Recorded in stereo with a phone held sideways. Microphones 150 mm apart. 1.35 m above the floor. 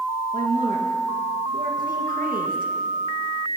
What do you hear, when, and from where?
0.3 s a woman speaking: 75° right (ahead or behind), 1.8 m